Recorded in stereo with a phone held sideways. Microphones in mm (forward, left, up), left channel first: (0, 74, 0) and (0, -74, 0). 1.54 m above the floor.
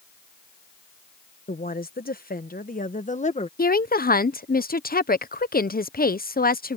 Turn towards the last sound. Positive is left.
turn(degrees=85)